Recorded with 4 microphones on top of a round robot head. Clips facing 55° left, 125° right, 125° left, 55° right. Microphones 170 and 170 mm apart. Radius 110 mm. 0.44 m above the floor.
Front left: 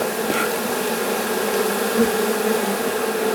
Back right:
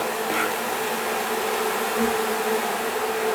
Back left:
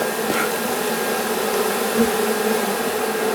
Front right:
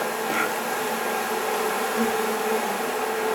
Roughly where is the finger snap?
I don't hear a finger snap.